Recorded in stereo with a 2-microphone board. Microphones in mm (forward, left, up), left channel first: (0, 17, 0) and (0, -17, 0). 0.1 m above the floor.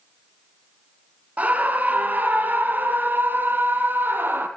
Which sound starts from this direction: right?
A scream, at 1.4 s.